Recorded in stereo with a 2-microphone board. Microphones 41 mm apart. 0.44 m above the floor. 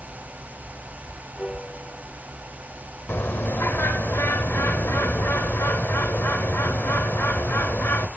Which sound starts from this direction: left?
A bird, at 3.1 s.